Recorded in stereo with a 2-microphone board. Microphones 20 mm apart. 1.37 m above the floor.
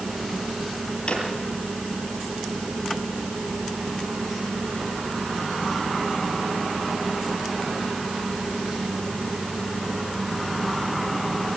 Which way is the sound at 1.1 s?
45° left (ahead or behind).